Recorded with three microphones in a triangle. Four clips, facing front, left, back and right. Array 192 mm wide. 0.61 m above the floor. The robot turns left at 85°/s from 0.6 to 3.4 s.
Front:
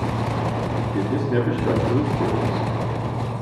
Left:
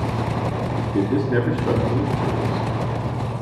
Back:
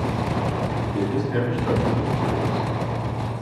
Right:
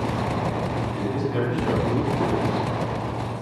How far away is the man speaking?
About 7 m.